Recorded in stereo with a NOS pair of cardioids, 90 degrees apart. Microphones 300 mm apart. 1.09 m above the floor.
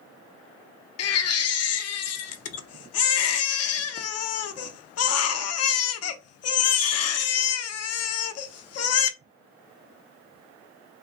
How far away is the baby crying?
About 0.5 m.